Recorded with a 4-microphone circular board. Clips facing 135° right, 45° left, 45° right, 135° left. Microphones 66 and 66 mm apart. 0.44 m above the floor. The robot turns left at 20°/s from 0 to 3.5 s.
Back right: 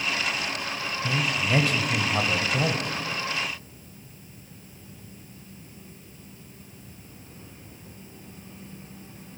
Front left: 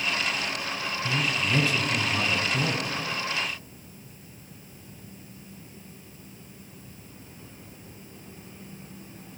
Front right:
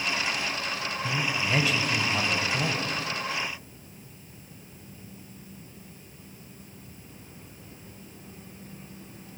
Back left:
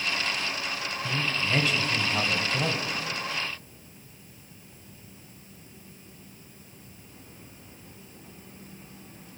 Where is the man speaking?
120° right, 1.8 m; by 3.0 s 160° right, 1.8 m.